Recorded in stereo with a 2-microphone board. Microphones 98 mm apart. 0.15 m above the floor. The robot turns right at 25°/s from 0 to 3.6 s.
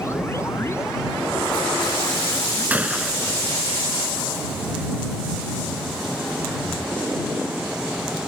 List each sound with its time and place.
2.7 s a gunshot: 15° right (ahead or behind); by 3.4 s 5° right (ahead or behind)